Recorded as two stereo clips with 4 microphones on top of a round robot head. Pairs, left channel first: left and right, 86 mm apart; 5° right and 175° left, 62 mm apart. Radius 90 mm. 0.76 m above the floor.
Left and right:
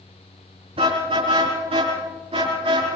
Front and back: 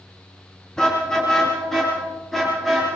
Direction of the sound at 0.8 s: 85° right.